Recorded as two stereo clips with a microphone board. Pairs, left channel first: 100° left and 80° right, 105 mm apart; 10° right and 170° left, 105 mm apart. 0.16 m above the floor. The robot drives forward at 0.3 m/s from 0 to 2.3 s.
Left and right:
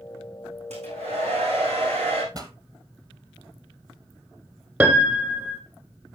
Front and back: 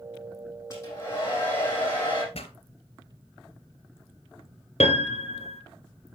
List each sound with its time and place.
0.7 s a hair dryer: 70° right, 6 m; by 2.2 s 75° right, 6 m
2.3 s a pop: 30° right, 1.2 m
4.8 s a piano: 10° right, 1.2 m